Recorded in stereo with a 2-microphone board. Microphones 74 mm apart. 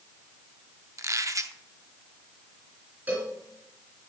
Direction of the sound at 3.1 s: 20° right (ahead or behind).